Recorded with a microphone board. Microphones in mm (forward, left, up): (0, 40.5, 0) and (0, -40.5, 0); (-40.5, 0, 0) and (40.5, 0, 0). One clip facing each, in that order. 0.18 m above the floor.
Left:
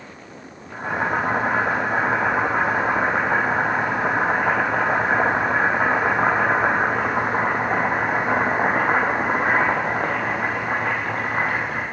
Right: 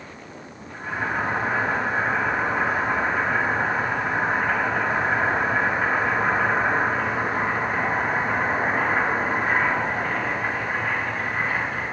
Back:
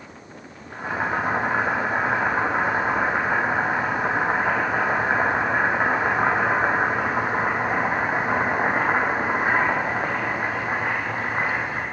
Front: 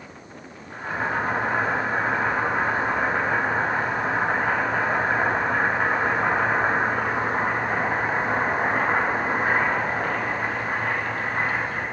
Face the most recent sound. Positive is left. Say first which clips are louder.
# left 4 dB, back 1 dB
turn(degrees=110)